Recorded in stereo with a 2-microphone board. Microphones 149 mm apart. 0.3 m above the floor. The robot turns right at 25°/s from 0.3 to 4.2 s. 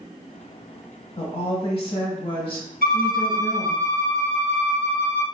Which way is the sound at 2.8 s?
80° right.